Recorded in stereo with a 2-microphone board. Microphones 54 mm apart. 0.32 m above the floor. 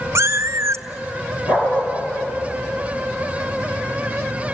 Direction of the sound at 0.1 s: 60° right (ahead or behind).